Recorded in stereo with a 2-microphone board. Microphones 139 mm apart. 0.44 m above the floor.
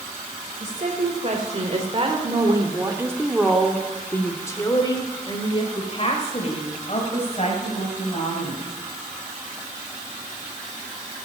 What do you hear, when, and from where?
0.6 s a woman speaking: 55° right (ahead or behind), 2.5 m; by 8.7 s 55° left (ahead or behind), 4 m